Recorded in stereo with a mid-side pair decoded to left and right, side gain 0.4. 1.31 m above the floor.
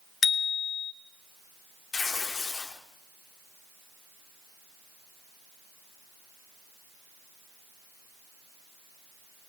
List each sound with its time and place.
0.2 s a bicycle bell: 50° left, 3.5 m
1.9 s tearing paper: 55° left, 4 m